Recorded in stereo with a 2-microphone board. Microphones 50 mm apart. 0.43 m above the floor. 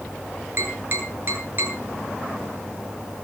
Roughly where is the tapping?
Right.